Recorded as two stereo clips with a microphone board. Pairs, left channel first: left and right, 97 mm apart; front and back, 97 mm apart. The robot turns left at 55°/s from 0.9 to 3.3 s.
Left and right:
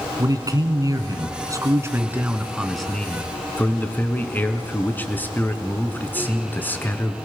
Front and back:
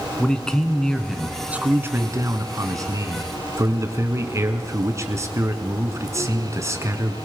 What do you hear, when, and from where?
0.2 s a man speaking: 80° right, 1.9 m; by 7.2 s 150° left, 1.9 m